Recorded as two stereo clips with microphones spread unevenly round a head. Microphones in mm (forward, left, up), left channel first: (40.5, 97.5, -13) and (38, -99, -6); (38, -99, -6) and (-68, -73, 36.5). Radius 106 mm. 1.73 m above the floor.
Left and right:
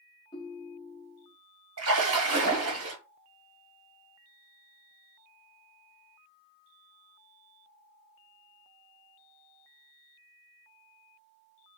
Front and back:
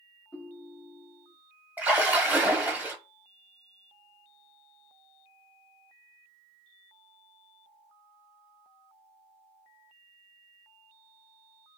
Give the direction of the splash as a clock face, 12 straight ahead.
4 o'clock.